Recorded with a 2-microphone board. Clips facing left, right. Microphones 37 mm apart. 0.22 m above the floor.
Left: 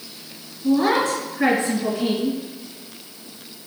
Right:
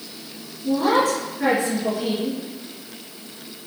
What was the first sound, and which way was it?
A woman speaking, 45° left (ahead or behind).